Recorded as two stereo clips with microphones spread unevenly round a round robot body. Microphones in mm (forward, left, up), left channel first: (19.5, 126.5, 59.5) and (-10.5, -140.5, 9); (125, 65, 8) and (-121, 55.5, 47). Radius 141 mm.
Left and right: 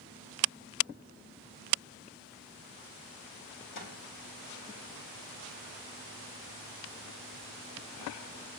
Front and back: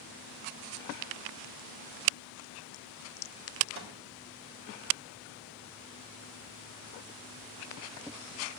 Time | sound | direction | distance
3.8 | a snare drum | 145° left | 4 m